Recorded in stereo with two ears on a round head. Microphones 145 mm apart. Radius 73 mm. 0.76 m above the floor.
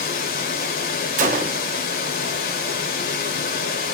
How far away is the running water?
About 1.1 m.